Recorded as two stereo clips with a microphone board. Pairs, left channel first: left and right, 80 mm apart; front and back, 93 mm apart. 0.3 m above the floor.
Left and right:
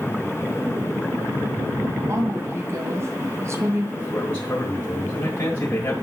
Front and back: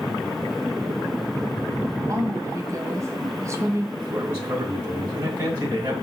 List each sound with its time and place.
2.1 s a woman speaking: 135° right, 1.9 m
4.0 s a man speaking: 125° left, 3 m